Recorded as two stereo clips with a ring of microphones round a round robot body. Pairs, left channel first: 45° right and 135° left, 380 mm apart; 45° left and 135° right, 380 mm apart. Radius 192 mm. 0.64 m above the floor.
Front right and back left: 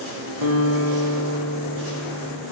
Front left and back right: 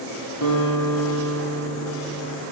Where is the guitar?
100° left, 4 m.